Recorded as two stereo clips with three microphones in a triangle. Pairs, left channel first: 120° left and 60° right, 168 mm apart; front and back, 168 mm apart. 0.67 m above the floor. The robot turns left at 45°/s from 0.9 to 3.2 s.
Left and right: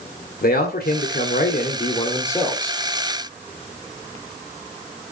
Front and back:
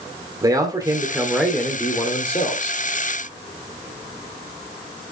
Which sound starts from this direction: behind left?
A man speaking, at 0.4 s.